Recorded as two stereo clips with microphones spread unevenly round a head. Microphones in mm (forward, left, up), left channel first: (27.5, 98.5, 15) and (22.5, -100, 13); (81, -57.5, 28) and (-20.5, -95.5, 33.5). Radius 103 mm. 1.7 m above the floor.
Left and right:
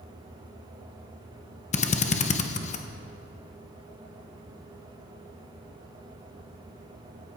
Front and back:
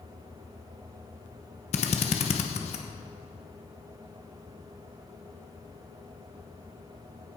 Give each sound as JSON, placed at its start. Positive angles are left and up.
{"t": 1.7, "sound": "a drill", "azimuth_deg": 40, "distance_m": 1.0}